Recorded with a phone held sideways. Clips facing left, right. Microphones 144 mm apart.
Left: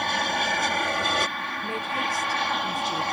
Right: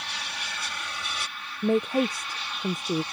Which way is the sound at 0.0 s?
60° left (ahead or behind).